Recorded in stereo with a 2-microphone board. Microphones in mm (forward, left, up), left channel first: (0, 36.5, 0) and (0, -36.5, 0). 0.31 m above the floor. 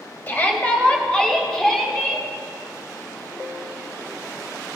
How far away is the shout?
About 1.9 m.